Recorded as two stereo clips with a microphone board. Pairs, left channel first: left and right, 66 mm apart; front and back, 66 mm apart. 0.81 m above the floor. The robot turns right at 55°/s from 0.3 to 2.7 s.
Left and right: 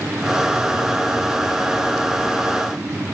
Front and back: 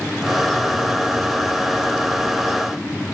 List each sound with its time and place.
Only background noise.